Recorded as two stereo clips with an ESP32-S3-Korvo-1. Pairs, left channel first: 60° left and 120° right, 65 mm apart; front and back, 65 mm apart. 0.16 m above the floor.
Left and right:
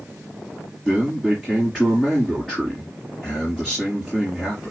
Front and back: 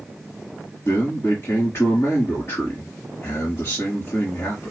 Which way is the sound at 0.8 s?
20° right.